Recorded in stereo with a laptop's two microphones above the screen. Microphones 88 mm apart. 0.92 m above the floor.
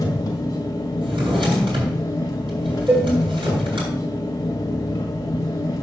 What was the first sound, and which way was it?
An engine running, 45° left (ahead or behind).